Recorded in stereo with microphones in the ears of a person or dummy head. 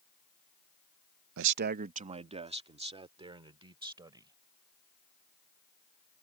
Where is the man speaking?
75° right (ahead or behind); by 4.3 s 25° right (ahead or behind).